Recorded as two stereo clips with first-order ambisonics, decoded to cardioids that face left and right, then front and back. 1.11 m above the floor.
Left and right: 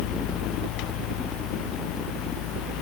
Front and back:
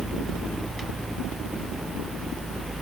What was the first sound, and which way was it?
Only background noise.